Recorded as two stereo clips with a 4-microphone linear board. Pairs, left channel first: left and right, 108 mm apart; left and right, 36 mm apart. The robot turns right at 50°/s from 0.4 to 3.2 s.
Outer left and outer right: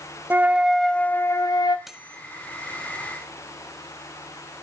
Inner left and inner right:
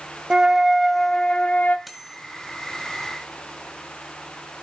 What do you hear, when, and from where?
0.3 s a flute: 20° right, 0.9 m; by 1.8 s 50° left, 0.9 m
1.9 s cutlery clinking: centre (ahead or behind), 2 m; by 2.2 s 15° right (ahead or behind), 2 m